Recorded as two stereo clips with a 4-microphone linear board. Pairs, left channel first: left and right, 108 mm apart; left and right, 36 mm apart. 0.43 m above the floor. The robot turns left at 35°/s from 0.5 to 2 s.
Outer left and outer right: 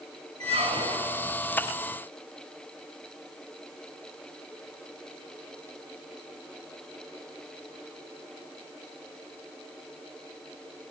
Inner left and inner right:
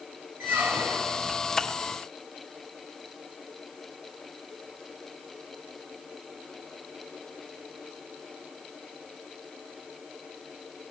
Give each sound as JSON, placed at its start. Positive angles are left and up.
{"t": 0.4, "sound": "a squeak", "side_deg": -75, "distance_m": 0.7}